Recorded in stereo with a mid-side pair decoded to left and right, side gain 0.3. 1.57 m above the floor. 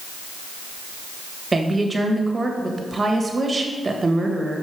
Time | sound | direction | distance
1.5 | a woman speaking | 40° right | 1.4 m